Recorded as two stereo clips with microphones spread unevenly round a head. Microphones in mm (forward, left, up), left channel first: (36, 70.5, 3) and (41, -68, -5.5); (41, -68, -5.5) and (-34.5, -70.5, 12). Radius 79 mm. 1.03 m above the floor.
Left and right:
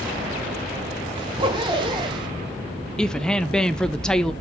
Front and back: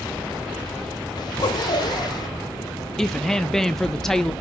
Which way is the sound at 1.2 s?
30° right.